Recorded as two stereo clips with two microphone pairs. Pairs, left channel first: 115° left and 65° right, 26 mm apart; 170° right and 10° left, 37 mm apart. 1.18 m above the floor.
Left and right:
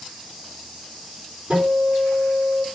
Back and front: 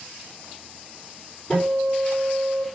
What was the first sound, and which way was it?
A guitar, 90° right.